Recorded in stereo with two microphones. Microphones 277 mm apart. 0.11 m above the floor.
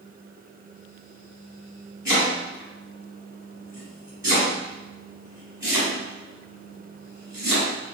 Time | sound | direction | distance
2.0 | chopping | 15° right (ahead or behind) | 1.8 m